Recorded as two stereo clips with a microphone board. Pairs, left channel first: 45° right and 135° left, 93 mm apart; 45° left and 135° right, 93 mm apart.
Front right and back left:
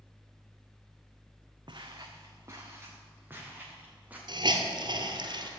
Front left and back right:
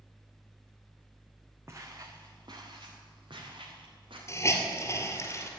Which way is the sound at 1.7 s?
165° left.